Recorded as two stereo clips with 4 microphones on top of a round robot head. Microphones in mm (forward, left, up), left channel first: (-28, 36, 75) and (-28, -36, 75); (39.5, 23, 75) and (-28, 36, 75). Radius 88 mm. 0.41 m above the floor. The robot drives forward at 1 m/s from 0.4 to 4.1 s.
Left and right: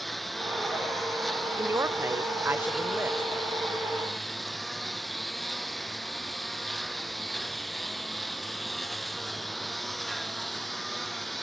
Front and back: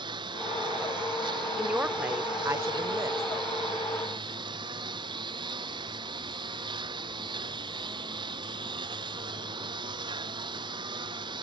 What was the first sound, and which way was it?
A lawn mower, straight behind.